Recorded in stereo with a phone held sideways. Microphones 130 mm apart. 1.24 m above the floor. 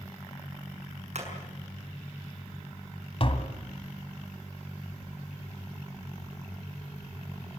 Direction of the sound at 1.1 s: 60° right (ahead or behind).